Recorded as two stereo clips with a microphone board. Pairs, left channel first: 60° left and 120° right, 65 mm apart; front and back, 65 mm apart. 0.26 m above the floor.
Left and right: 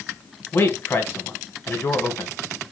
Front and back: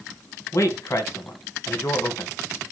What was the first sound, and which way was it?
A man speaking, 20° left.